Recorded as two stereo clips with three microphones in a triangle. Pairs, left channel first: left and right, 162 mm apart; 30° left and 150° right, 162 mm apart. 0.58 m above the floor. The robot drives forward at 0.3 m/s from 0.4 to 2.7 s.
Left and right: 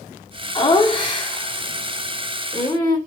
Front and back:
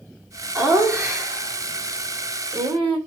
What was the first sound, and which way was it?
Laughter, 135° left.